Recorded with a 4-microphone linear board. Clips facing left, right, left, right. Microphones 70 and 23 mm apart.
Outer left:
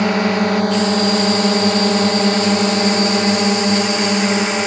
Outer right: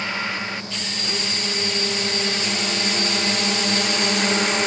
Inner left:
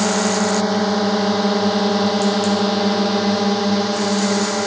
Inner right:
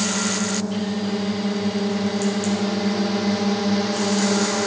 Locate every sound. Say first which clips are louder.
0.0 s a drone: outer left 11 dB, inner left 5 dB; 75° left (ahead or behind); by 4.7 s 15° left (ahead or behind)